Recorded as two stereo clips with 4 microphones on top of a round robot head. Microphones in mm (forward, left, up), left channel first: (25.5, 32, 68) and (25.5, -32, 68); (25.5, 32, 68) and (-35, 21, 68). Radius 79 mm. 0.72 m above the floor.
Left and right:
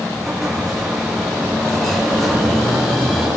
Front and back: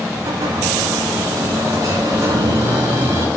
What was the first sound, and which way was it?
An explosion, straight behind.